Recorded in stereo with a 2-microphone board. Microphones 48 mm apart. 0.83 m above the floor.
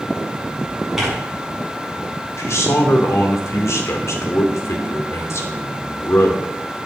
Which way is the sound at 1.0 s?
10° right (ahead or behind).